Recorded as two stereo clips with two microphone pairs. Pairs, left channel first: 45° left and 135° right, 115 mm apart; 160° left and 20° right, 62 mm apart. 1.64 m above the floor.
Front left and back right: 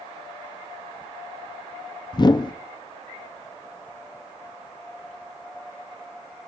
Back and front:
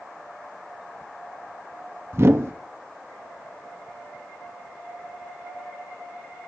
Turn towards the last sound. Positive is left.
turn(degrees=10)